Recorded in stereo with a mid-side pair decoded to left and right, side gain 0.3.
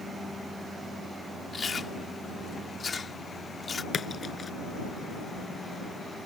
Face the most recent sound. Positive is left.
turn(degrees=55)